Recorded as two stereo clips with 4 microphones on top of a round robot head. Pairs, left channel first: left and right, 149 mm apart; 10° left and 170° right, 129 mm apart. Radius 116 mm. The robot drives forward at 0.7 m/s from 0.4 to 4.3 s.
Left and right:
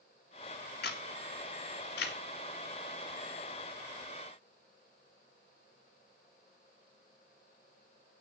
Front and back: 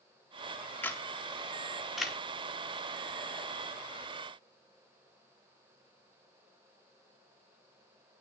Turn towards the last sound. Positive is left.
turn(degrees=130)